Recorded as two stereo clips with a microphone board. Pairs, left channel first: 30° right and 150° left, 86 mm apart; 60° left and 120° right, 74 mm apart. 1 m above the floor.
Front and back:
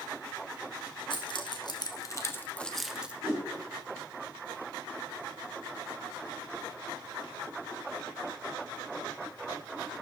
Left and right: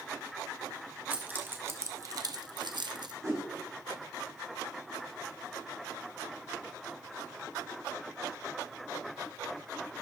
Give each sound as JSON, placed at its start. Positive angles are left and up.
{"t": 1.1, "sound": "keys jangling", "azimuth_deg": -50, "distance_m": 1.5}
{"t": 3.2, "sound": "a whoosh", "azimuth_deg": -155, "distance_m": 5.0}